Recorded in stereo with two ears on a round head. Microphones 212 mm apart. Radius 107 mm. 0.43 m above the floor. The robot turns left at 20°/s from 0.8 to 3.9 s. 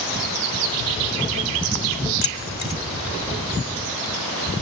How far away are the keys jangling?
About 1.2 m.